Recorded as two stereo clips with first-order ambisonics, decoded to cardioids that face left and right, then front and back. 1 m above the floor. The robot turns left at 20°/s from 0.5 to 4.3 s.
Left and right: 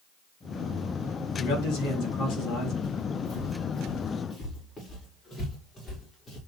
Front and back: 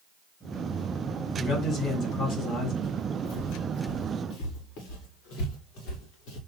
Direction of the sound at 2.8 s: 25° left.